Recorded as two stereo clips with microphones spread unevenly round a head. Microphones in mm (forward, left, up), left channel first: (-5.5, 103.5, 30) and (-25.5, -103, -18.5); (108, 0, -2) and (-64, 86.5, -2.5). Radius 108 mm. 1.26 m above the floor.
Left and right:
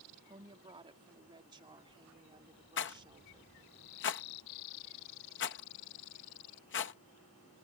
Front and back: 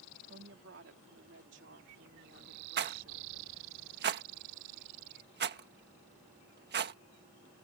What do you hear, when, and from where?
0.3 s a woman speaking: 165° right
2.8 s a rattle: 120° left